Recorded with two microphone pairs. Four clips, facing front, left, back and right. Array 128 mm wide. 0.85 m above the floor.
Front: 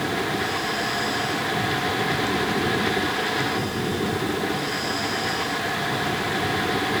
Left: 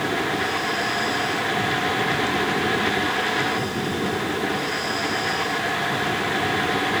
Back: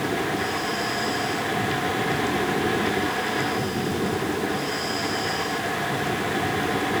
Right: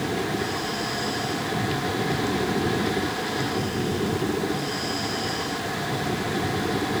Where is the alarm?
I don't hear an alarm.